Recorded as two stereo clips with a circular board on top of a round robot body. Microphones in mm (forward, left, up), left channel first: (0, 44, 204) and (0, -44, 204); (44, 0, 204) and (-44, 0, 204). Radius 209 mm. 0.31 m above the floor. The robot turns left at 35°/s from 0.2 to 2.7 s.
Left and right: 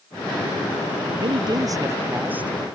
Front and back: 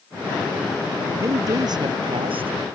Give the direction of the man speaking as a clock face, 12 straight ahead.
4 o'clock.